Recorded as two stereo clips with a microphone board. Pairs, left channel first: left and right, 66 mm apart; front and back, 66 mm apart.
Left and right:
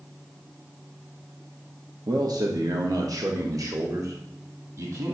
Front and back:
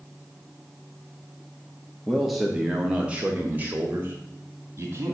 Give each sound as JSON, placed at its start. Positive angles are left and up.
{"t": 2.1, "sound": "a man speaking", "azimuth_deg": -80, "distance_m": 1.1}